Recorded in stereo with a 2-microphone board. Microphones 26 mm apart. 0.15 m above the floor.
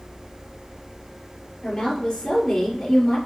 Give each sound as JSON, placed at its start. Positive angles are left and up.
{"t": 1.6, "sound": "a woman speaking", "side_deg": 20, "distance_m": 3.5}